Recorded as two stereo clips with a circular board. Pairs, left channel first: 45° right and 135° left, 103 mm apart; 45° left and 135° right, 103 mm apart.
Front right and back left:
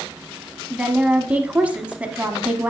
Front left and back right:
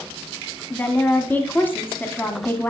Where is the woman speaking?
80° left, 1.1 m.